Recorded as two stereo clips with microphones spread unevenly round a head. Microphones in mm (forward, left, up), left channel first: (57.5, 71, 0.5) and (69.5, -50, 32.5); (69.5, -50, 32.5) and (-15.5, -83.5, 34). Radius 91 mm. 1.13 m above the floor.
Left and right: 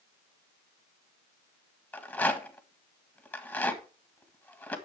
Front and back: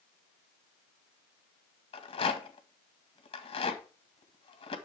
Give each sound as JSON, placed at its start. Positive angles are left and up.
{"t": 1.9, "sound": "a rattle", "azimuth_deg": 25, "distance_m": 1.6}